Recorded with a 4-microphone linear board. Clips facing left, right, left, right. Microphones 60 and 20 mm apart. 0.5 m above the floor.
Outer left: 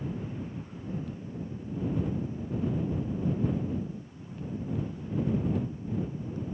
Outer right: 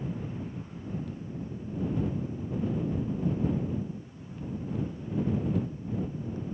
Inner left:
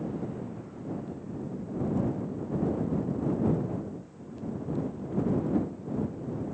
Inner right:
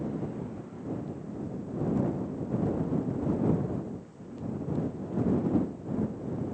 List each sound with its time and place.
Only background noise.